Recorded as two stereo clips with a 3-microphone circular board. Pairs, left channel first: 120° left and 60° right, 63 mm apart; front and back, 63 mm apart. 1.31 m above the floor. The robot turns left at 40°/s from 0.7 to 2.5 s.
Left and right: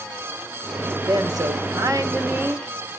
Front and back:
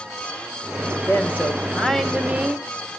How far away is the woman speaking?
About 1.6 m.